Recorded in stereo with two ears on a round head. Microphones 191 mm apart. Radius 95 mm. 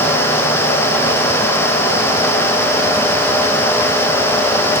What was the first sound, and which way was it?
Only background noise.